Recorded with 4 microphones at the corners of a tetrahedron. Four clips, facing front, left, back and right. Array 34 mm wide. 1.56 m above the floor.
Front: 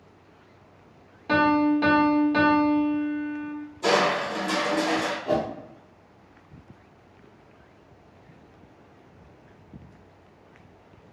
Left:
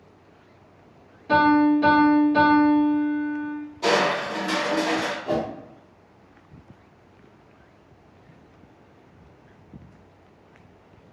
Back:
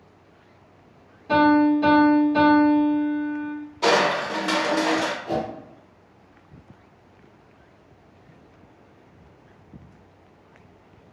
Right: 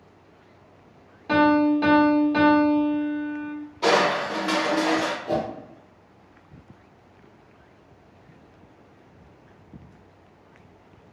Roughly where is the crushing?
Behind right.